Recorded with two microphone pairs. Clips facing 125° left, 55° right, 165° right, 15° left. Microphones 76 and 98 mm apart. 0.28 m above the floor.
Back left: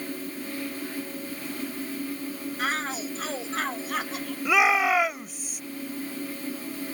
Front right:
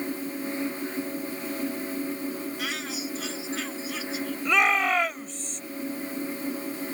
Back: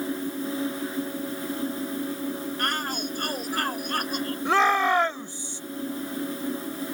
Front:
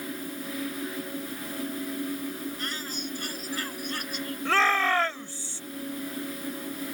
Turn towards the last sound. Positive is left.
turn(degrees=-170)